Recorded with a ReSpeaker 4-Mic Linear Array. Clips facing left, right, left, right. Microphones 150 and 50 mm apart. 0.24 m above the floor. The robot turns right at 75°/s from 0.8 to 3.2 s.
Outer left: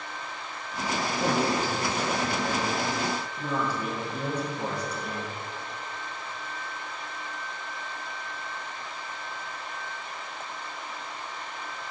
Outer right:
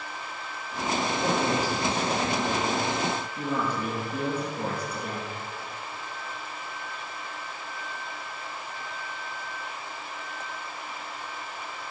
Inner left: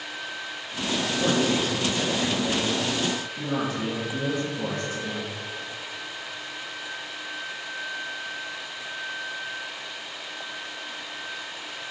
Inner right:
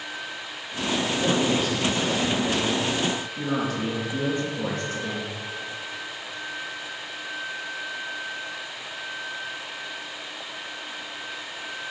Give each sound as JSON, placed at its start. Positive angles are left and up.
{"t": 1.2, "sound": "a man speaking", "azimuth_deg": 90, "distance_m": 4.0}